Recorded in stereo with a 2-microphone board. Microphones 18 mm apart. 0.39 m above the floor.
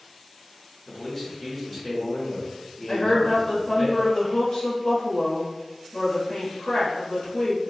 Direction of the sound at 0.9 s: 20° left (ahead or behind).